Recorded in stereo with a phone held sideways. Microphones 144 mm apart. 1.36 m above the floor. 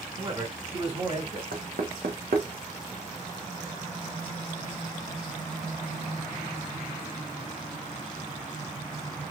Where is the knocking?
80° right, 1.1 m.